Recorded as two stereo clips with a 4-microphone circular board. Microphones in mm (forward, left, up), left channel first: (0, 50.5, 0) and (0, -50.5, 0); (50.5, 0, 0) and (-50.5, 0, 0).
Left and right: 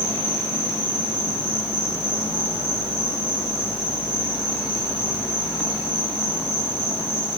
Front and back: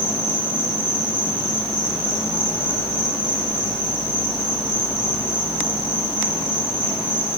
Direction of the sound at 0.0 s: 150° left.